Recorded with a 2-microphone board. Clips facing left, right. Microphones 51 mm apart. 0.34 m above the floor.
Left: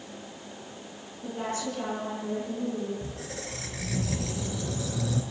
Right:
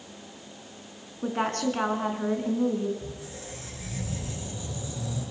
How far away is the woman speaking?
About 4 m.